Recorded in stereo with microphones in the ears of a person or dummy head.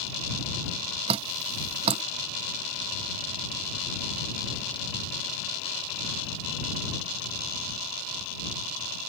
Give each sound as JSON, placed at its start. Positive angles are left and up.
{"t": 1.1, "sound": "dripping", "side_deg": -30}